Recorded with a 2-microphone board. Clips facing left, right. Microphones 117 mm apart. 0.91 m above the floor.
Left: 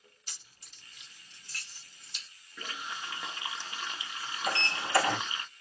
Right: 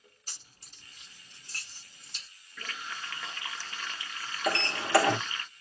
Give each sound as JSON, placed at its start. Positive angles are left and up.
{"t": 0.3, "sound": "keys jangling", "side_deg": -40, "distance_m": 0.8}
{"t": 2.6, "sound": "a running tap", "side_deg": 20, "distance_m": 0.5}
{"t": 4.5, "sound": "a sliding door", "side_deg": -80, "distance_m": 1.2}